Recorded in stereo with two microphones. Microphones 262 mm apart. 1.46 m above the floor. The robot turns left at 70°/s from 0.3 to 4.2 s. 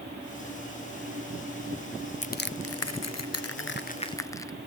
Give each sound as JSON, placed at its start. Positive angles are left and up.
{"t": 2.2, "sound": "crushing", "side_deg": 30, "distance_m": 0.5}